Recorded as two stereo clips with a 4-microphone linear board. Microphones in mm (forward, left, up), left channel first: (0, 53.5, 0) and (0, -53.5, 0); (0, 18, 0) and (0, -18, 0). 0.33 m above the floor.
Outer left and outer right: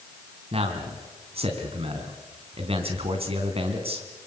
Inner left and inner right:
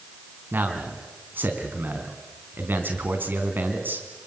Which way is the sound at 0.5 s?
65° right (ahead or behind).